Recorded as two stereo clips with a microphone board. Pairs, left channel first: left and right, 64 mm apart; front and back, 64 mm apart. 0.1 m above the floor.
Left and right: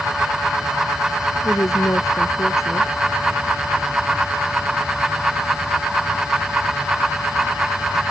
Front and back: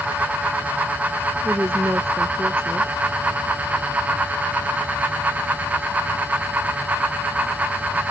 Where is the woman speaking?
125° left.